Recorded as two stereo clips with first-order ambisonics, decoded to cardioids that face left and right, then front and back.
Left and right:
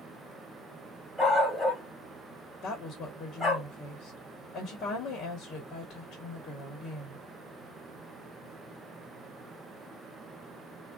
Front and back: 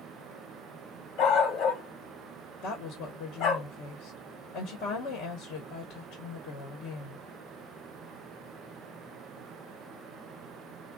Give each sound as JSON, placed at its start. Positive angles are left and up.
{"t": 1.2, "sound": "a dog barking", "azimuth_deg": 0, "distance_m": 1.6}
{"t": 2.6, "sound": "a woman speaking", "azimuth_deg": 35, "distance_m": 1.1}